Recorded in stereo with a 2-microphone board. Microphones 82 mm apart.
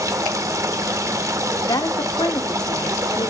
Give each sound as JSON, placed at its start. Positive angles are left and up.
{"t": 0.0, "sound": "running water", "side_deg": -40, "distance_m": 0.8}
{"t": 1.7, "sound": "a woman speaking", "side_deg": 55, "distance_m": 1.1}